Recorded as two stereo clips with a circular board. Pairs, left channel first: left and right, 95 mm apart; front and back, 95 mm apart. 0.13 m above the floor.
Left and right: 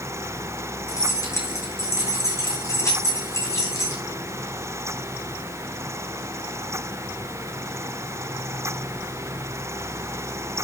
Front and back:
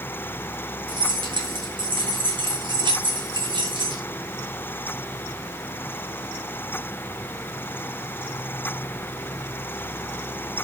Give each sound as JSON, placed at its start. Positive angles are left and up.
{"t": 0.9, "sound": "keys jangling", "azimuth_deg": 145, "distance_m": 7.0}